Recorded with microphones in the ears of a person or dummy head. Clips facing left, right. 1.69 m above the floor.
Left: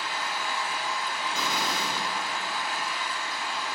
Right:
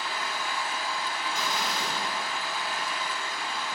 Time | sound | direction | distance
0.0 | an engine running | 20° left (ahead or behind) | 1.2 m
1.3 | an explosion | 70° left (ahead or behind) | 0.8 m